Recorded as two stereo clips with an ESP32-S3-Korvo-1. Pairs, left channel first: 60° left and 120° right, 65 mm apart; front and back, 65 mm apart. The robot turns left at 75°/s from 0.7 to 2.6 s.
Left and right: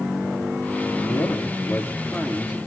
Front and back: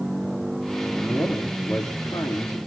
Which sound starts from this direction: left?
A man speaking, at 0.9 s.